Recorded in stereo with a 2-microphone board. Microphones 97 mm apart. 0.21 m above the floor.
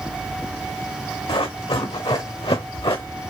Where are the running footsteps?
80° left, 2 m; by 3.0 s 55° left (ahead or behind), 0.9 m.